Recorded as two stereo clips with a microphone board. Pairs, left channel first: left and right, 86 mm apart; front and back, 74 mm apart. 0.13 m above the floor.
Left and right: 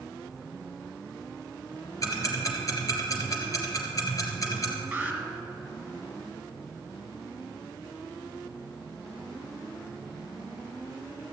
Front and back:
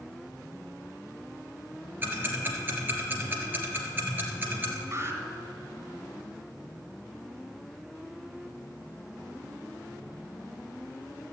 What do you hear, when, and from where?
2.0 s ticking: 125° left, 2.5 m
4.9 s an alarm: 160° right, 2 m